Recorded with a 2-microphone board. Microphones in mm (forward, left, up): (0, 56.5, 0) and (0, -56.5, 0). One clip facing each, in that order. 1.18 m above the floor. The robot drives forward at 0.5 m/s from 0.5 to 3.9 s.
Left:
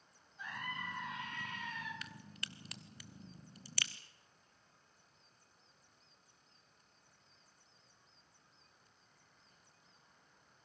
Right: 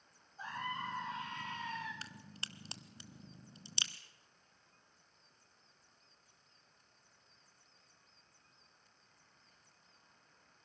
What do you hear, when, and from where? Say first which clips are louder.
0.4 s a scream: right 4 dB; 35° right (ahead or behind), 10 m; by 1.9 s 30° right (ahead or behind), 10.5 m
2.0 s a crack: even; 30° right (ahead or behind), 1.2 m; by 3.9 s 20° right (ahead or behind), 1.6 m